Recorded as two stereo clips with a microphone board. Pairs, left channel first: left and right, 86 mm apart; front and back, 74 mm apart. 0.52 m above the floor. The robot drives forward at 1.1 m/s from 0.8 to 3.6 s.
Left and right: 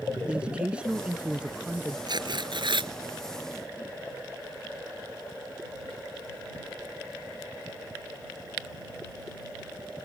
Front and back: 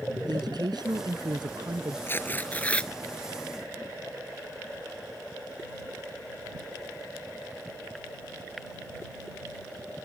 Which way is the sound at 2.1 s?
60° right.